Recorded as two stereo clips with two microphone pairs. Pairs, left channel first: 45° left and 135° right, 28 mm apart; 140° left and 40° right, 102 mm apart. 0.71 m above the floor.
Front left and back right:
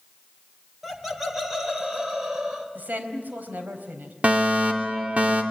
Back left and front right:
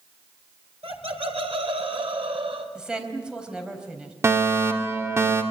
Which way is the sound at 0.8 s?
50° right.